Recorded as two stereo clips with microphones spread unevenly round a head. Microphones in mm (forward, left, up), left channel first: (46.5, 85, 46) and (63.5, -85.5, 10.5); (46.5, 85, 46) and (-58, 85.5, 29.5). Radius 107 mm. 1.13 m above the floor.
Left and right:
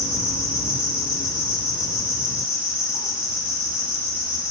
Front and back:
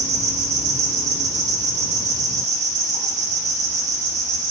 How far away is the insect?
About 3.5 m.